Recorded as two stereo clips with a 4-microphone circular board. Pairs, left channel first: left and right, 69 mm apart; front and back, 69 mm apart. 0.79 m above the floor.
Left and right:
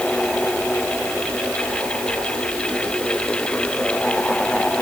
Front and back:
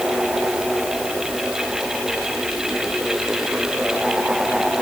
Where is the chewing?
I don't hear chewing.